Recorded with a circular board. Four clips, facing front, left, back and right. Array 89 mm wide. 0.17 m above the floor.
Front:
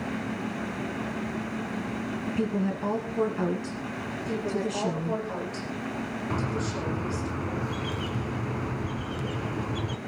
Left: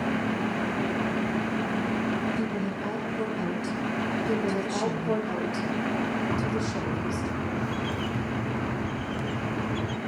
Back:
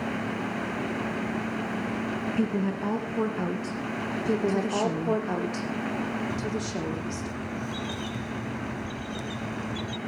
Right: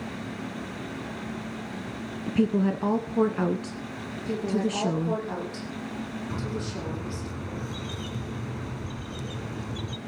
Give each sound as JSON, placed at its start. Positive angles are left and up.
{"t": 2.3, "sound": "a woman speaking", "azimuth_deg": -95, "distance_m": 1.7}
{"t": 4.2, "sound": "a woman speaking", "azimuth_deg": 170, "distance_m": 7.5}
{"t": 6.3, "sound": "a bird", "azimuth_deg": 40, "distance_m": 1.2}